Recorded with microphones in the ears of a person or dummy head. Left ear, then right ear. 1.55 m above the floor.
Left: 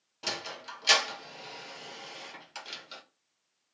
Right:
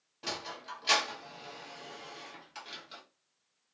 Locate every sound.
0.2 s a sliding door: 10° left (ahead or behind), 0.6 m